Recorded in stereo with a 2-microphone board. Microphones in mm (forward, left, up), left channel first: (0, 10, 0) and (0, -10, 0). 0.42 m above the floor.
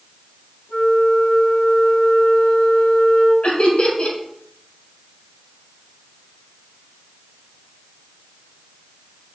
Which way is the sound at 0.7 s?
65° left (ahead or behind).